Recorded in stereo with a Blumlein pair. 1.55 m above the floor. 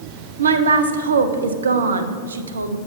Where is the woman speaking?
70° right, 0.6 m.